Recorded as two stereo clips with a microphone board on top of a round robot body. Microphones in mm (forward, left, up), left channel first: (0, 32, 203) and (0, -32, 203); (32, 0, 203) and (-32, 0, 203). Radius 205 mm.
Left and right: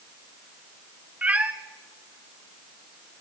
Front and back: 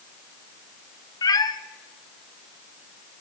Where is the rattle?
No rattle in this recording.